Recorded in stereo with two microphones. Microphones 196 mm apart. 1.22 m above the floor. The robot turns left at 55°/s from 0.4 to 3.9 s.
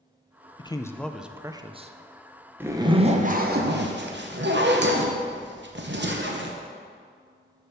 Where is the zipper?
10° right, 0.8 m; by 6.5 s 80° right, 0.8 m.